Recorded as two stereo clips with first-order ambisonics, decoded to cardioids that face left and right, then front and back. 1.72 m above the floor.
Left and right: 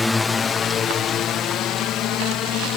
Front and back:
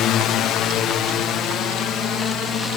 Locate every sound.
0.0 s a drone: 15° left; by 2.8 s 55° left